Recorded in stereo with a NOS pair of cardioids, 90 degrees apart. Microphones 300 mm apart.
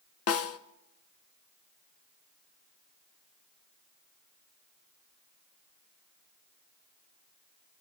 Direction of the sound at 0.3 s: 55° left.